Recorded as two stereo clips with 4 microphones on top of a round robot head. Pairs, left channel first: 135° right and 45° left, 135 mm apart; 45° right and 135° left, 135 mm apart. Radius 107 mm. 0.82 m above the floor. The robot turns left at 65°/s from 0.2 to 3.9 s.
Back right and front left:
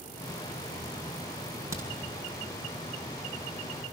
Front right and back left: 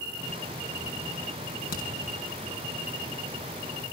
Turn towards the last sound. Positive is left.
turn(degrees=-170)